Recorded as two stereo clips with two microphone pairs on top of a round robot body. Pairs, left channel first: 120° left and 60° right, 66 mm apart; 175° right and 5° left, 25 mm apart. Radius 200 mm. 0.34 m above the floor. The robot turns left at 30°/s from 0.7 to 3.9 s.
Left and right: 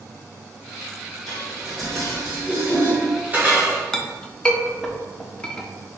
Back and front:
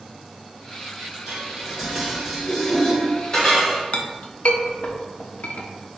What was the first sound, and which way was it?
Dishes clattering, 60° right.